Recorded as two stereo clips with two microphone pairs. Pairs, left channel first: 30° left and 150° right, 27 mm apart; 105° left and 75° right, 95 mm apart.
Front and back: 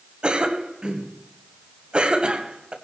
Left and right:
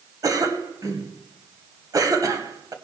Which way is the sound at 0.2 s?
115° right.